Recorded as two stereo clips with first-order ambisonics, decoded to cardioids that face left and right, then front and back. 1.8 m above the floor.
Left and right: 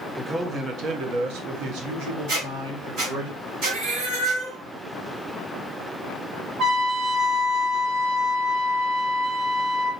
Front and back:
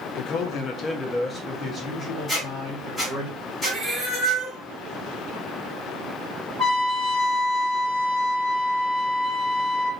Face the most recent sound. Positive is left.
turn(degrees=-115)